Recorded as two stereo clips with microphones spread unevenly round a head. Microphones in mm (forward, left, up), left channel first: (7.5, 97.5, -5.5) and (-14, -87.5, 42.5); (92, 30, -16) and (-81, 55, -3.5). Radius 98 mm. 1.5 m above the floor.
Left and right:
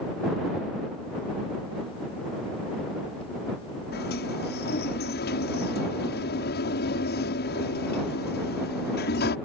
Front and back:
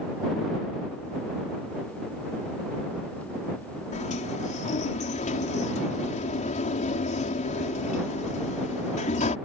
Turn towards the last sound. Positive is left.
turn(degrees=40)